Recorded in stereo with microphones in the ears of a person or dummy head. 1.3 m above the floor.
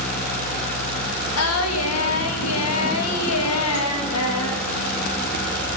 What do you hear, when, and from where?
1.4 s singing: 80° left, 2 m